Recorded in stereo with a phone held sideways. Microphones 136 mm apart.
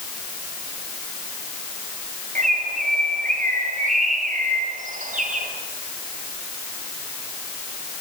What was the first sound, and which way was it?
A bird, 70° right (ahead or behind).